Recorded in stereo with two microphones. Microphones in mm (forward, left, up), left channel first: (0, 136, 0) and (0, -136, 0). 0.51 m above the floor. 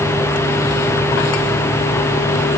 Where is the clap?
No clap in this recording.